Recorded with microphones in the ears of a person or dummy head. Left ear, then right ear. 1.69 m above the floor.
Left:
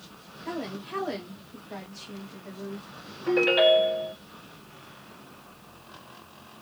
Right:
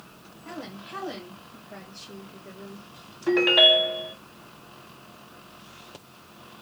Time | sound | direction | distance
0.5 | a woman speaking | 60° left (ahead or behind) | 2 m
3.3 | a ringtone | 5° right (ahead or behind) | 0.9 m